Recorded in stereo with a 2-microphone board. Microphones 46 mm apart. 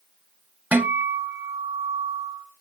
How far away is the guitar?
About 0.9 m.